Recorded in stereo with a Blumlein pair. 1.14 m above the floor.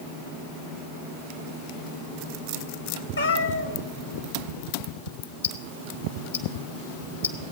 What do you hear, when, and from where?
3.2 s a cat meowing: 70° left, 1.3 m
5.4 s ticking: 70° left, 1.5 m